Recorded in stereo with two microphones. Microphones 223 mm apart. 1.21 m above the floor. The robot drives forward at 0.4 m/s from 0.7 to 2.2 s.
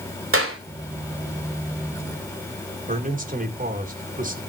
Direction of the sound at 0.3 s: 75° right (ahead or behind).